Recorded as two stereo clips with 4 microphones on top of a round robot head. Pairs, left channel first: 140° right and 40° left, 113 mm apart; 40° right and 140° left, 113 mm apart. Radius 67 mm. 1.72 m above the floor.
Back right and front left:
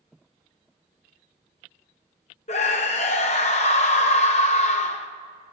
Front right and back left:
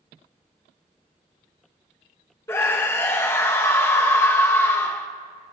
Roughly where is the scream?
Right.